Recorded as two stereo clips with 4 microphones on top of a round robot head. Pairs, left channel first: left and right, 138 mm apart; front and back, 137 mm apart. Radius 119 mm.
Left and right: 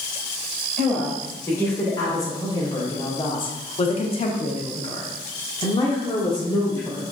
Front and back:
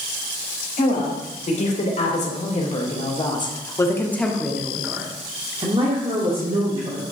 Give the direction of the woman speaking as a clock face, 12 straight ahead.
12 o'clock.